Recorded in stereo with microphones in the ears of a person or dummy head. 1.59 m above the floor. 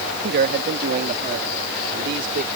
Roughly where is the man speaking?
Right.